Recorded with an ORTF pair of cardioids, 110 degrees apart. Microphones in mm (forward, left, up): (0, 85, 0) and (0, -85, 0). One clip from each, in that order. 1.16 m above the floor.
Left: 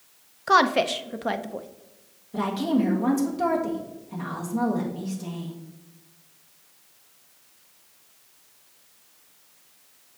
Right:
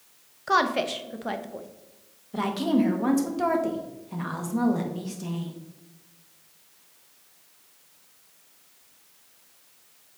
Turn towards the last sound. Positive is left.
turn(degrees=-20)